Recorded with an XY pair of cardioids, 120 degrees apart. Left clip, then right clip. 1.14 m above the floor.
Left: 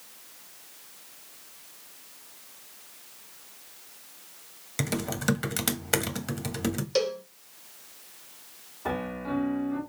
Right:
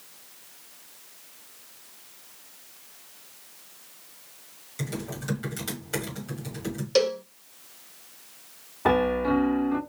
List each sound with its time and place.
4.8 s typing on a keyboard: 65° left, 1.2 m
7.0 s a cowbell: 25° right, 0.7 m
8.8 s a piano: 60° right, 0.8 m